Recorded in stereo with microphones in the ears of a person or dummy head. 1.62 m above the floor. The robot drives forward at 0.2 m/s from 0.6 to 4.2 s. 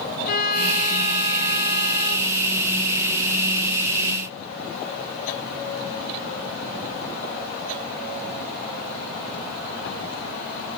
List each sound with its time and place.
0.2 s a violin: 55° left (ahead or behind), 1.4 m; by 2.4 s 65° left (ahead or behind), 1.3 m